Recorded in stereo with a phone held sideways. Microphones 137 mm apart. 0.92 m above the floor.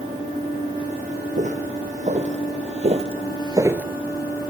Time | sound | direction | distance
1.4 | footsteps | 60° right (ahead or behind) | 3.5 m